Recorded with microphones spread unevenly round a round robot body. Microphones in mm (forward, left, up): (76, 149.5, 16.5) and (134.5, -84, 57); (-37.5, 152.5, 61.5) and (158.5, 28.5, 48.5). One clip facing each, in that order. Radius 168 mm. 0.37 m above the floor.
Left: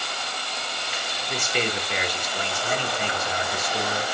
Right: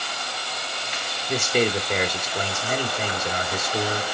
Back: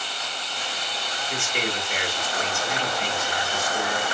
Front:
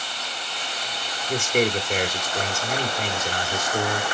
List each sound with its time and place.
1.3 s a man speaking: 40° right, 1.1 m